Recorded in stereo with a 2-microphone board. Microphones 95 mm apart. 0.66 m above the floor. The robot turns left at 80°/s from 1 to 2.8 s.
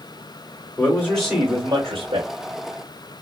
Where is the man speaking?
20° left, 2.5 m; by 2.3 s 85° right, 2.5 m.